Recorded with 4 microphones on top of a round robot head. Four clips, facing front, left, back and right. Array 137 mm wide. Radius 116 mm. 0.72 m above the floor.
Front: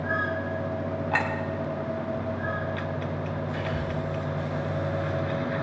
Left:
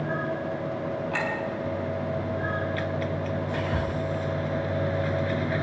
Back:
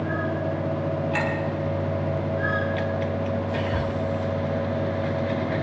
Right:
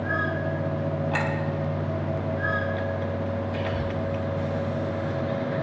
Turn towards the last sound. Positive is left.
turn(degrees=125)